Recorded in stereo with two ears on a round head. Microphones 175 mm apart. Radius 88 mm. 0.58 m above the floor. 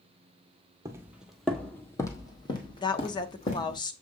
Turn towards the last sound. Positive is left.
turn(degrees=25)  # may be behind; listen again after turning